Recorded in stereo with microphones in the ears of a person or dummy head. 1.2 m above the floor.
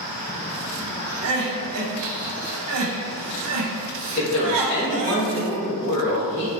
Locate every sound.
1.2 s crying: 75° right (ahead or behind), 0.8 m
4.2 s a woman speaking: 35° left (ahead or behind), 0.7 m